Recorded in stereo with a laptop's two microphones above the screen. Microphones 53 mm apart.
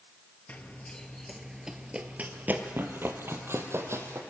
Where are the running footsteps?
30° left (ahead or behind), 1.2 m; by 4.2 s 60° right (ahead or behind), 2 m.